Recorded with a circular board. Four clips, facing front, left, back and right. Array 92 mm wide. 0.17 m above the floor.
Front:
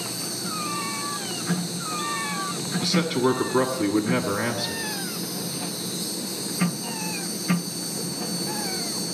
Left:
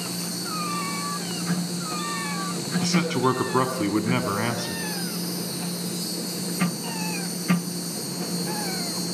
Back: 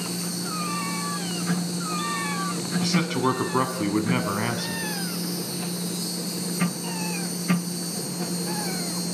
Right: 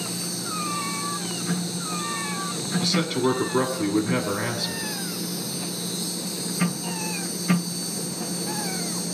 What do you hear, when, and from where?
0.0 s an insect: 120° left, 1.5 m
2.8 s a man speaking: 115° left, 1.2 m